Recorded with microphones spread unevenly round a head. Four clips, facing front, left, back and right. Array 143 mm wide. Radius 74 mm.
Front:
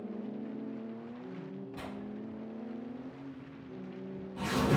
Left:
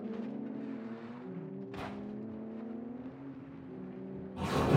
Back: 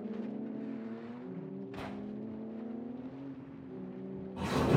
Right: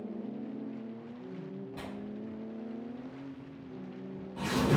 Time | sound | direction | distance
1.8 | tearing paper | 150° right | 1.9 m